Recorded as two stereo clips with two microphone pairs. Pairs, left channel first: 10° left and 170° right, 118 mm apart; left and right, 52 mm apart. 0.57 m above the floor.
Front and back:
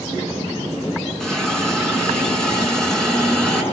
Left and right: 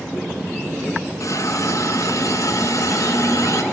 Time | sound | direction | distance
1.2 | a hiss | 95° left | 6.5 m